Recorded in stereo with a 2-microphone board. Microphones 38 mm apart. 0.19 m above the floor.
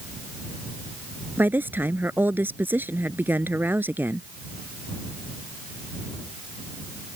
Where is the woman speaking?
60° right (ahead or behind).